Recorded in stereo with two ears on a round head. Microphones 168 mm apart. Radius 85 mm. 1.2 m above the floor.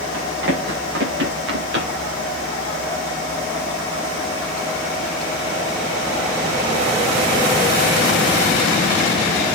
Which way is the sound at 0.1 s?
70° right (ahead or behind).